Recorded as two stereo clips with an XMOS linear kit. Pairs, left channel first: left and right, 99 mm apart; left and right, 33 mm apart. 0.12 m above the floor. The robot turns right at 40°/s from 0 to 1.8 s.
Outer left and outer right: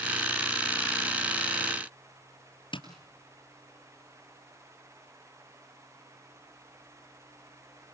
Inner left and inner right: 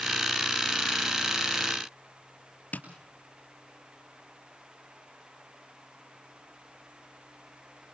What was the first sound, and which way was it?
Tapping, 55° left (ahead or behind).